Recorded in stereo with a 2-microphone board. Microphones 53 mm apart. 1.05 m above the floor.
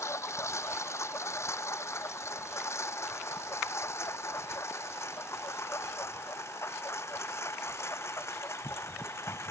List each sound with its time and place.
0.0 s a lawn mower: 55° left (ahead or behind); by 9.5 s 50° left (ahead or behind)